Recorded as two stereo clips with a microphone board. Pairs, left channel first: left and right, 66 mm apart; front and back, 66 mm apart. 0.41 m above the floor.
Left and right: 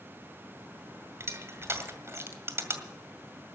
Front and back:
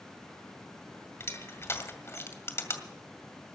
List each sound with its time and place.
1.2 s crushing: 45° right, 2 m